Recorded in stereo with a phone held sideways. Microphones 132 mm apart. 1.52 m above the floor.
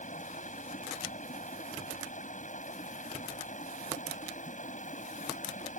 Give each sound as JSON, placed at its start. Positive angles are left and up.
{"t": 0.0, "sound": "running water", "side_deg": 70}